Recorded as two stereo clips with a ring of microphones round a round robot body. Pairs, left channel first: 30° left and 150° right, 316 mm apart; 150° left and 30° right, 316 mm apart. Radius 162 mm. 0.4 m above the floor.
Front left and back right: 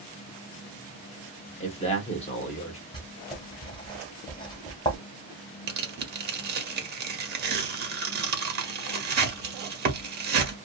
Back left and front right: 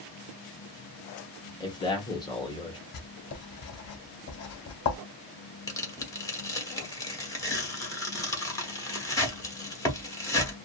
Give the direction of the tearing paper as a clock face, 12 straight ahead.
5 o'clock.